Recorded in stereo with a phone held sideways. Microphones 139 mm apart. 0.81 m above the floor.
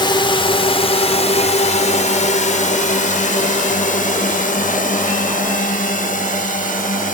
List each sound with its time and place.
0.0 s a drone: 35° left (ahead or behind); by 7.2 s 75° left (ahead or behind)